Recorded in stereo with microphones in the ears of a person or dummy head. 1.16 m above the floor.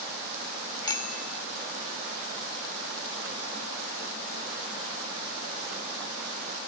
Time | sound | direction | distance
0.8 | a bicycle bell | 20° left (ahead or behind) | ?